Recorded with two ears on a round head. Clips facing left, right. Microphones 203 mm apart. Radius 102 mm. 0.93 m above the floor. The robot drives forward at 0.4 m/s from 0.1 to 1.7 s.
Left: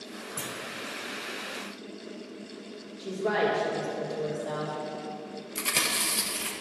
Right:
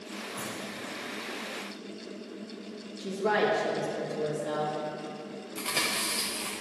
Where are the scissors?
No scissors in this recording.